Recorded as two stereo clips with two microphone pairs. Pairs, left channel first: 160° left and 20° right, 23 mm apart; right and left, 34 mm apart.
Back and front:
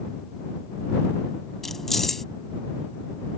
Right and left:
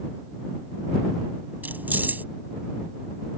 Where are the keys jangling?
90° left.